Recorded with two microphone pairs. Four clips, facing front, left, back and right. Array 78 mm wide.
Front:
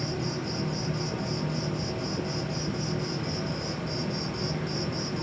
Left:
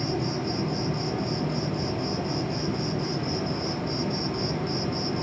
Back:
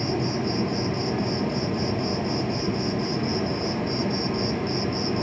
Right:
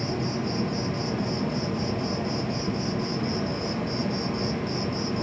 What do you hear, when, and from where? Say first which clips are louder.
0.0 s an insect: even, back 6 dB; 175° left, 1.2 m